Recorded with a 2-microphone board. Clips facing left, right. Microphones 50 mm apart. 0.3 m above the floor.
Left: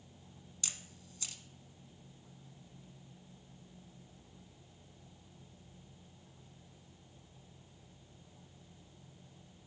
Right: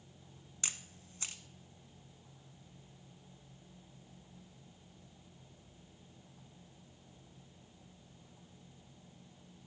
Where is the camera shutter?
40° right (ahead or behind), 0.7 m.